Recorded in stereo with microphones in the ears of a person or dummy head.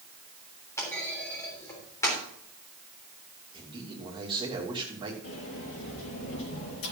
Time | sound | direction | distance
0.8 | a clunk | 20° left (ahead or behind) | 3.5 m
3.5 | a man speaking | 25° right (ahead or behind) | 3 m
5.2 | a sliding door | 65° left (ahead or behind) | 4.5 m